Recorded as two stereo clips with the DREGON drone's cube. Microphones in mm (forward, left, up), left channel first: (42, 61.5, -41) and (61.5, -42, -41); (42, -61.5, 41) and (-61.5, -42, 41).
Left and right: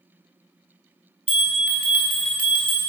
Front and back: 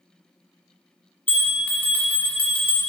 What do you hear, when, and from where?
1.3 s a bell: 40° left, 1.7 m